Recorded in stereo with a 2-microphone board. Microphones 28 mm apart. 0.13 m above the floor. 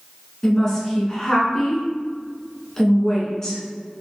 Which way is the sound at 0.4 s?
20° left (ahead or behind).